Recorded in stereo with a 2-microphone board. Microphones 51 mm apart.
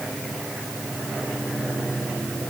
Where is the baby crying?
I don't hear a baby crying.